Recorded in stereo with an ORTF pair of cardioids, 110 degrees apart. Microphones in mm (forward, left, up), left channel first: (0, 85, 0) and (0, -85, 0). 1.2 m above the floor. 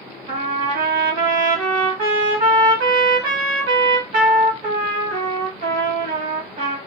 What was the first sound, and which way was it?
A trumpet, 70° right.